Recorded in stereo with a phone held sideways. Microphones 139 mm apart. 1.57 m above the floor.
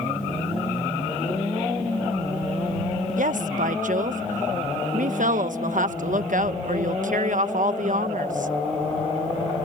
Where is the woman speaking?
70° right (ahead or behind).